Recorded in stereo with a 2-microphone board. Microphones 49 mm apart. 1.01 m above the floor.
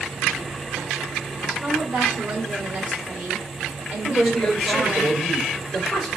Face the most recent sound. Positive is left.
turn(degrees=10)  # may be behind; listen again after turning